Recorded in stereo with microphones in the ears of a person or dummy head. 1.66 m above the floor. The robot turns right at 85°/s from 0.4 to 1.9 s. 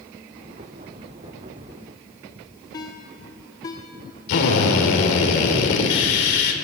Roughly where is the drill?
Left.